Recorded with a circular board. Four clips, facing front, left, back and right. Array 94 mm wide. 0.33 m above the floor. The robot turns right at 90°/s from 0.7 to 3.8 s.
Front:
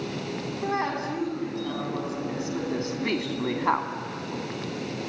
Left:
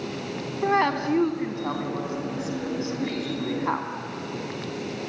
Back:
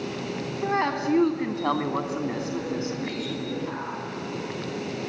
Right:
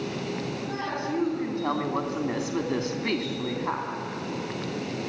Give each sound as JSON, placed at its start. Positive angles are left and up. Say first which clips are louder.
{"t": 0.6, "sound": "a woman speaking", "louder": "left 8 dB, back 4 dB", "azimuth_deg": 100, "distance_m": 2.5}